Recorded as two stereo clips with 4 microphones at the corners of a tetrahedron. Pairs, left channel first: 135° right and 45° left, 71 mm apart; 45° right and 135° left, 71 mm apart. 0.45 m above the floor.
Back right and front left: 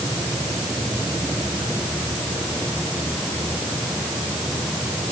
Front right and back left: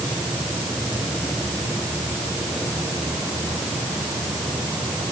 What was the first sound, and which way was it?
Only background noise.